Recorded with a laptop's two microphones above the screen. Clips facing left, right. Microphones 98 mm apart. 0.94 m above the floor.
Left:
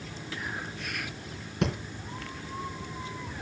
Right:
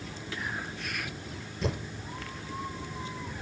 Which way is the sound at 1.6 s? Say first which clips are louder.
Left 3 dB; 70° left (ahead or behind).